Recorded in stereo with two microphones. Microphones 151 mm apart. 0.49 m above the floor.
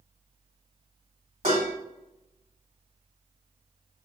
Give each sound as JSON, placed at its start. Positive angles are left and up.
{"t": 1.4, "sound": "dishes clattering", "side_deg": -70, "distance_m": 1.8}